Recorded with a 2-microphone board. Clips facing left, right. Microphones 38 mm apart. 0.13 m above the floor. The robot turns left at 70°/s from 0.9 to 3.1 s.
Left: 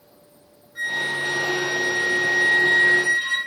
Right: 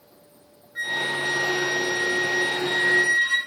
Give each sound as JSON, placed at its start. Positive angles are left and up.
{"t": 0.8, "sound": "a flute", "side_deg": -20, "distance_m": 1.2}